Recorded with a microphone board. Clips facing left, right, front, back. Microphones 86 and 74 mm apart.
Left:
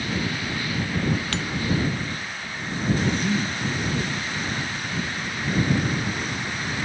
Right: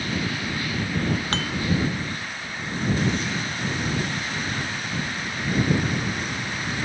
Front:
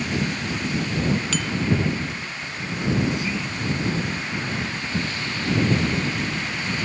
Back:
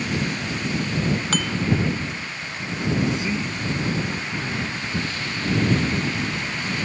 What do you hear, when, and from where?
1.3 s dishes clattering: 140° right
3.1 s a man speaking: 115° left